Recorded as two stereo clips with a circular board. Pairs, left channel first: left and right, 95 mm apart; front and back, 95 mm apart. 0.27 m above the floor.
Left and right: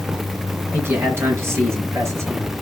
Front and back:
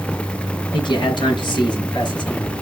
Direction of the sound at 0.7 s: 25° right.